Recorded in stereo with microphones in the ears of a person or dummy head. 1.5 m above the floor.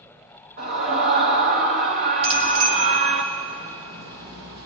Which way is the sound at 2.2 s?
80° right.